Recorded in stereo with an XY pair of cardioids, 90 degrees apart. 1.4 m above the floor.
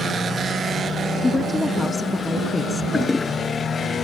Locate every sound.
1.2 s a woman speaking: 25° left
2.9 s a toilet flushing: 25° left